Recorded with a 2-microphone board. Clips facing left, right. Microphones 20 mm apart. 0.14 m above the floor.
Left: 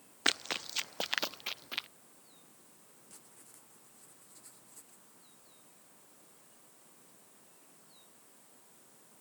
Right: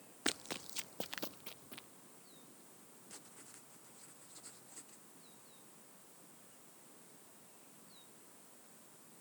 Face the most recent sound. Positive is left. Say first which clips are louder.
# right 3 dB
turn(degrees=-25)  # may be behind; listen again after turning